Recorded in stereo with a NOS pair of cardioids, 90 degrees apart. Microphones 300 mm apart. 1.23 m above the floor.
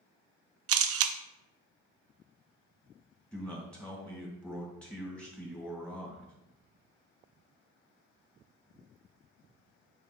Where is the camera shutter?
50° right, 0.5 m.